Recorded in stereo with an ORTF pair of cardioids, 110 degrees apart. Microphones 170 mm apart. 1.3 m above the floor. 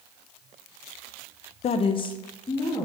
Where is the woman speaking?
45° left, 0.5 m; by 2.9 s 25° left, 1.8 m.